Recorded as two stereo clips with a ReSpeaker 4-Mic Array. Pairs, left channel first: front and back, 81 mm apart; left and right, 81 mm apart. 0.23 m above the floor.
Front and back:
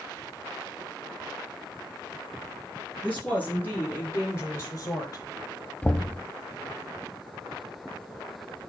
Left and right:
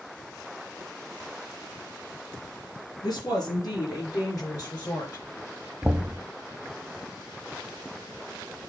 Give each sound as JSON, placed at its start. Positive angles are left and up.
{"t": 3.0, "sound": "a woman speaking", "azimuth_deg": 70, "distance_m": 3.5}
{"t": 5.8, "sound": "knocking", "azimuth_deg": -40, "distance_m": 0.7}